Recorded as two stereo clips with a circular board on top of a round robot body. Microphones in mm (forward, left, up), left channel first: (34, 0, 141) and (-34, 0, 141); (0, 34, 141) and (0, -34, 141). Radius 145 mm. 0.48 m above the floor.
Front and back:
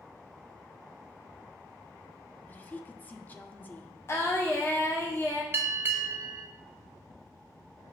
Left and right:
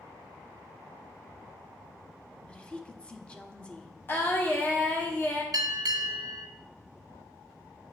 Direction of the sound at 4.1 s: 35° left.